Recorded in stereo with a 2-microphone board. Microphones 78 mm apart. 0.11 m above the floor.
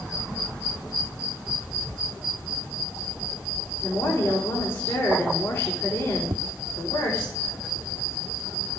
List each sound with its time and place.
3.8 s a woman speaking: 25° left (ahead or behind), 6.5 m
6.3 s tapping: 60° right (ahead or behind), 0.5 m